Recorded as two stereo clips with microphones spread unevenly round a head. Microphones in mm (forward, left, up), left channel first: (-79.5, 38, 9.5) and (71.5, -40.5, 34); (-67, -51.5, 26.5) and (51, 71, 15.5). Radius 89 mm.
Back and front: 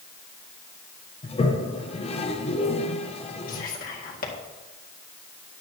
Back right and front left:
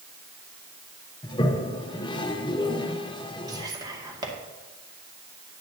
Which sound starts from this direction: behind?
A toilet flushing, at 1.2 s.